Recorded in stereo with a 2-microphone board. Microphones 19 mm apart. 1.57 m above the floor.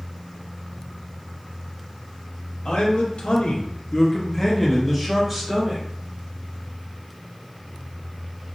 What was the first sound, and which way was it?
A man speaking, 80° left.